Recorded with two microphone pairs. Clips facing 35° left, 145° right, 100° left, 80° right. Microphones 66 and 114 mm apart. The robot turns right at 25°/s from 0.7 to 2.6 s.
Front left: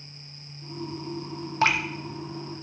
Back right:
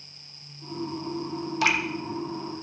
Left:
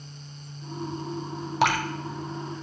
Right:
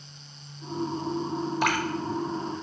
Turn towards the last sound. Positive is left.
turn(degrees=115)